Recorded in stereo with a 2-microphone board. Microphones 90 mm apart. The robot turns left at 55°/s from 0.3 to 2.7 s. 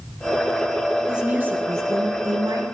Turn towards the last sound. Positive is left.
turn(degrees=-100)